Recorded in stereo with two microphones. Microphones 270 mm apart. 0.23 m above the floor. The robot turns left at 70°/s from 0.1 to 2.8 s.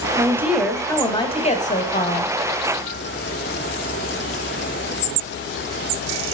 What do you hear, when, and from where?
0.2 s a woman speaking: 15° right (ahead or behind), 1.7 m; by 2.4 s 25° left (ahead or behind), 1.7 m